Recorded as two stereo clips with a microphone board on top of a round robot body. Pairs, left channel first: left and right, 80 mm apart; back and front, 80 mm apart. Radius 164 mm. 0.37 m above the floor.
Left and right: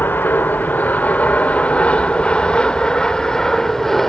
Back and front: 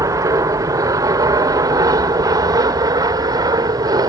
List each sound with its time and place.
0.0 s an aircraft: 30° left; by 4.1 s 5° left